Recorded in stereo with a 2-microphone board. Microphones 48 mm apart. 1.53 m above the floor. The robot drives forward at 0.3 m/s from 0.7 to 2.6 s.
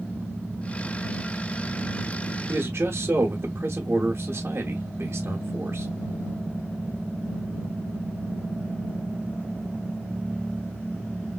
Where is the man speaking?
55° right (ahead or behind), 0.9 m.